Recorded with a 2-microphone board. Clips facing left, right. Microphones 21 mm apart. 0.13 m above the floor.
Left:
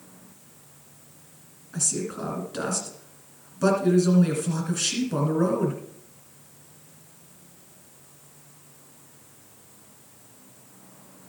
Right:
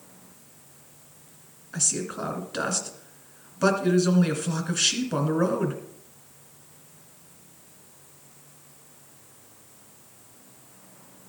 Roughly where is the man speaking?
Right.